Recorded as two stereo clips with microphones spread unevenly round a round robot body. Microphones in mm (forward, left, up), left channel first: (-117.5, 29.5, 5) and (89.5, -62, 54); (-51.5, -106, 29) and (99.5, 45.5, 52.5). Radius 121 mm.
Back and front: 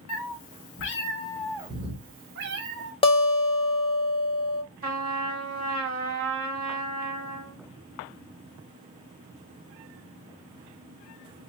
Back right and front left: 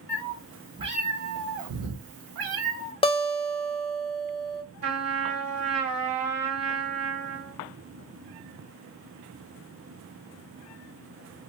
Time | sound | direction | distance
0.1 | a cat meowing | 145° left | 0.9 m
3.0 | a guitar | 175° right | 0.9 m
4.8 | a trumpet | 40° left | 2 m